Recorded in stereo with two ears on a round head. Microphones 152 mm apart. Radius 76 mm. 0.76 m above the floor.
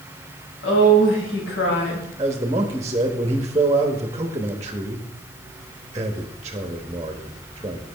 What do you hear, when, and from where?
0.6 s a woman speaking: 80° left, 4 m
2.2 s a man speaking: 20° right (ahead or behind), 1.0 m